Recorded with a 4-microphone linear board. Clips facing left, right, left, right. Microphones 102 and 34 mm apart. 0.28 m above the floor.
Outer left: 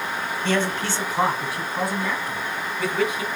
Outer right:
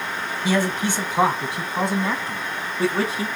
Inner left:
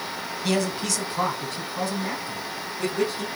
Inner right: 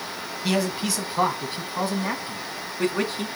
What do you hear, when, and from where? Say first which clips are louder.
0.4 s a man speaking: outer right 2 dB, inner right 1 dB; 10° right (ahead or behind), 1.8 m; by 3.3 s 35° right (ahead or behind), 3 m